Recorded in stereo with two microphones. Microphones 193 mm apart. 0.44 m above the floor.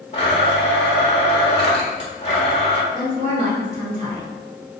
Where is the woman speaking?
40° right (ahead or behind), 2.0 m.